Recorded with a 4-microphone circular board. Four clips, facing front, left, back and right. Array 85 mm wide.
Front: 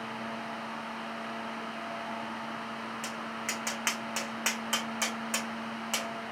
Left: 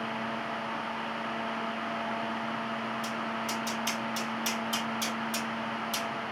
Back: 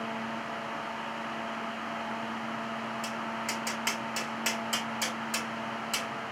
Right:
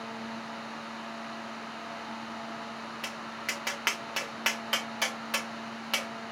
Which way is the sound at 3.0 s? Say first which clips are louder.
Left 4 dB, back 2 dB; 65° right.